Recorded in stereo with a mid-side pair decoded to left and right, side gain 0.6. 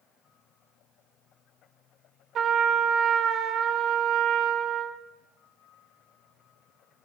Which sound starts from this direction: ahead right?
A trumpet, at 2.4 s.